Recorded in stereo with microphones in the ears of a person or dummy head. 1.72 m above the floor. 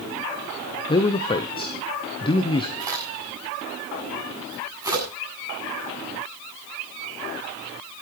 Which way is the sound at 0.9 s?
20° left (ahead or behind).